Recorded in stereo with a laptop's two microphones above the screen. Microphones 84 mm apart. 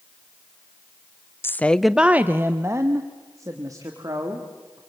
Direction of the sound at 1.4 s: 30° left (ahead or behind).